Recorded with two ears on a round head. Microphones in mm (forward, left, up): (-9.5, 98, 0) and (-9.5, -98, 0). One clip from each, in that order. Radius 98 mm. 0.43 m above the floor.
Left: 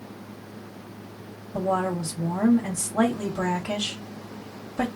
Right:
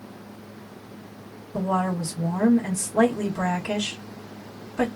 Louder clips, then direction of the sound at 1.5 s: Even; 15° right (ahead or behind).